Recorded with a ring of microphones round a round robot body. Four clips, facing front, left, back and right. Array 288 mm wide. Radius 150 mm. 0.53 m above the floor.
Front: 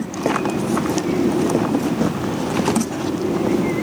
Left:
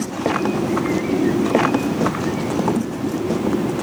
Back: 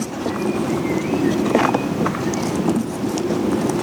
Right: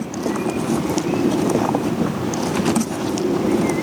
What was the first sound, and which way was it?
Only background noise.